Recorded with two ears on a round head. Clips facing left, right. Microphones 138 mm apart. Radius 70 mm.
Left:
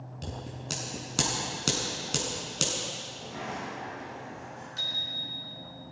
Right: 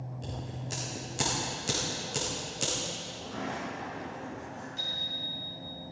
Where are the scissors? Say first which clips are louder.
Left 2 dB; 80° left, 5 m.